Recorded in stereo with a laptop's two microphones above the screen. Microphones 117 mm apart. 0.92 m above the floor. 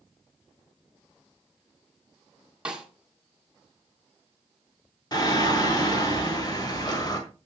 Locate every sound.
2.6 s a snare drum: 10° right (ahead or behind), 2.0 m
5.1 s singing: 35° left (ahead or behind), 1.7 m